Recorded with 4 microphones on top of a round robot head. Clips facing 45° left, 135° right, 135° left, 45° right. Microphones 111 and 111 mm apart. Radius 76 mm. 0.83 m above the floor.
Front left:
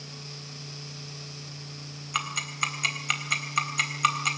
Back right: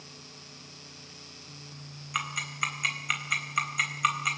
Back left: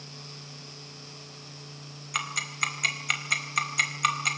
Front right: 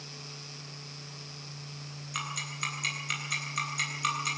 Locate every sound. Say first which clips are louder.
2.1 s ticking: front left 2 dB, back left 5 dB; 110° left, 3.5 m